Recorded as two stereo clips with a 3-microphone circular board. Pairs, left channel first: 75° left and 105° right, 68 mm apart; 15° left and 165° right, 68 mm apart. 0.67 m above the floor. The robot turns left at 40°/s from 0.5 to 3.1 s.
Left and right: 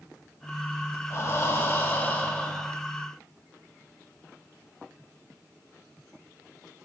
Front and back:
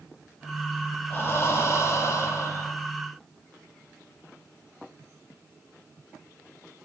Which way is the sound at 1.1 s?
55° left.